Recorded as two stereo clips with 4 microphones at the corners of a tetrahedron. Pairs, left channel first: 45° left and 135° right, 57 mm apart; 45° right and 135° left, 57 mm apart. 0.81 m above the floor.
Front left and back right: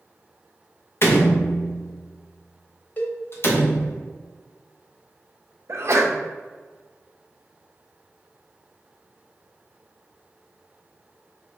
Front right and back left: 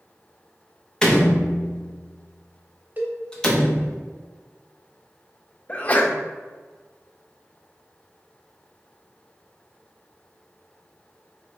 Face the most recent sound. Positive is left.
turn(degrees=-105)